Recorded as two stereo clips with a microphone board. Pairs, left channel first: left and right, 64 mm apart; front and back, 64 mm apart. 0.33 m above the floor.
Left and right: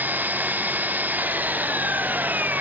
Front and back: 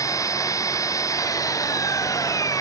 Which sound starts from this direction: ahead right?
An engine running, at 0.0 s.